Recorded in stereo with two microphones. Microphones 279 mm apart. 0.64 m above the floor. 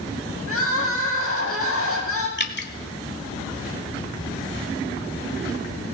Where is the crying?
50° left (ahead or behind), 4.5 m.